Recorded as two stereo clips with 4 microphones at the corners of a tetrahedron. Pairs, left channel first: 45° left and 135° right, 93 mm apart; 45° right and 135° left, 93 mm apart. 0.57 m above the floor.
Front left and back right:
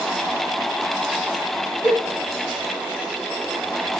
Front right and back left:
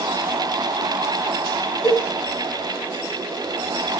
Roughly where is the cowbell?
Right.